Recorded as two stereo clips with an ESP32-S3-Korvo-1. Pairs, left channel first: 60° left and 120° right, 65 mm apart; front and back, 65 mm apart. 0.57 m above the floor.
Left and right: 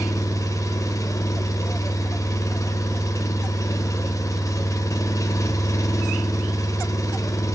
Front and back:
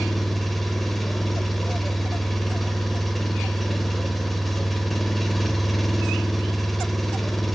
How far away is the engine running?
About 1.5 m.